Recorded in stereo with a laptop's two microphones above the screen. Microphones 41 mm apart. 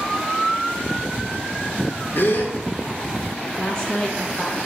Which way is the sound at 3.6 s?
25° left (ahead or behind).